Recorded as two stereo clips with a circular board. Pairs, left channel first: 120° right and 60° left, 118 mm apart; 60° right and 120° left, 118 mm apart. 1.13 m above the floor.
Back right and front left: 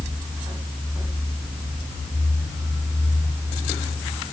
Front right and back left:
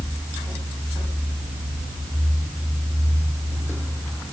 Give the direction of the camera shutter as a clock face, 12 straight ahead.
No camera shutter in this recording.